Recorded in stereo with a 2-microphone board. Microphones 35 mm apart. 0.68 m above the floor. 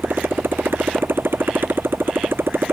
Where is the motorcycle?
80° right; by 2.7 s 90° right.